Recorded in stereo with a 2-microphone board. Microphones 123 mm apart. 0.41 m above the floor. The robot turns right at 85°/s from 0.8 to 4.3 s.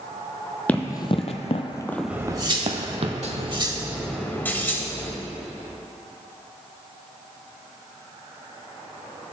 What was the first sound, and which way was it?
Running footsteps, 10° left (ahead or behind).